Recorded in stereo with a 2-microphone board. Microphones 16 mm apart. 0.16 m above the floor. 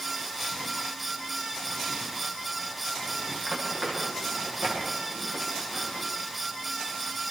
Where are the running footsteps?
40° right (ahead or behind), 8 m; by 6.1 s 35° right (ahead or behind), 10 m.